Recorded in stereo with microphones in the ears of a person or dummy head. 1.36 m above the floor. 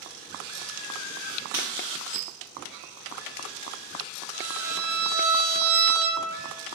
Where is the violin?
60° right (ahead or behind), 0.8 m.